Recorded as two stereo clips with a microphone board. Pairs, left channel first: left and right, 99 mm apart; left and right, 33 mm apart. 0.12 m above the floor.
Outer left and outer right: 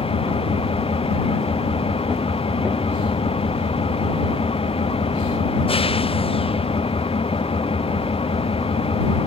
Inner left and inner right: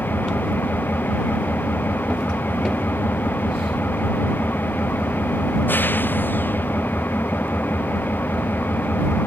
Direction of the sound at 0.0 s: 90° left.